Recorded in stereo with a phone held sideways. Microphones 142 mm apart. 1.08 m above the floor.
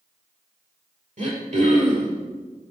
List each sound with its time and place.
1.2 s throat clearing: 55° right (ahead or behind), 4 m